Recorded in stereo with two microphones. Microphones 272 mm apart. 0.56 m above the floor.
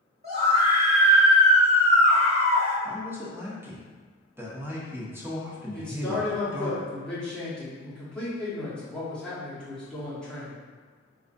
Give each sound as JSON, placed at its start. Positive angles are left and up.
{"t": 0.2, "sound": "a scream", "side_deg": -35, "distance_m": 1.8}
{"t": 2.9, "sound": "a man speaking", "side_deg": -10, "distance_m": 0.7}
{"t": 5.7, "sound": "a man speaking", "side_deg": 5, "distance_m": 1.2}